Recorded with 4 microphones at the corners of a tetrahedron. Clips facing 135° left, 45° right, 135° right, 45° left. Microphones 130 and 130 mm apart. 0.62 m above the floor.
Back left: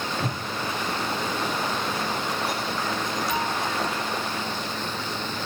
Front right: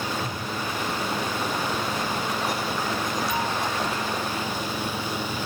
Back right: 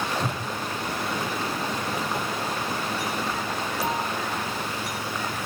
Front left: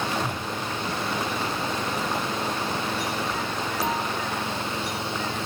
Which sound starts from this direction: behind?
A whoosh, at 0.2 s.